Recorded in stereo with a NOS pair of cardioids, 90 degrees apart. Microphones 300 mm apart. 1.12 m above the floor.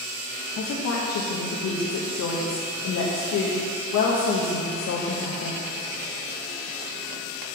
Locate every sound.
0.6 s a woman speaking: 60° left, 1.0 m